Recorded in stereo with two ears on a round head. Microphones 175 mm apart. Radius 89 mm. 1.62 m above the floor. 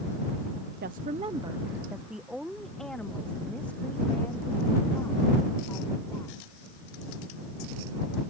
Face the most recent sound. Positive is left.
turn(degrees=15)  # may be behind; listen again after turning